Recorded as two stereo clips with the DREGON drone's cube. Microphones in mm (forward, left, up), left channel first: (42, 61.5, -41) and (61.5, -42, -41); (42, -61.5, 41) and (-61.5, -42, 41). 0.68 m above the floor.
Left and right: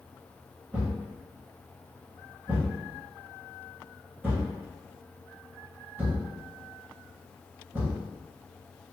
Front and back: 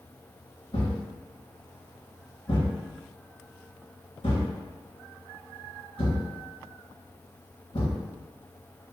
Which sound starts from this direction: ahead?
A thud, at 0.7 s.